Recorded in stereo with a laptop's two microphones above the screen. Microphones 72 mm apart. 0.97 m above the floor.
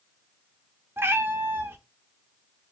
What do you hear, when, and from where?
1.0 s a cat meowing: 30° right (ahead or behind), 0.6 m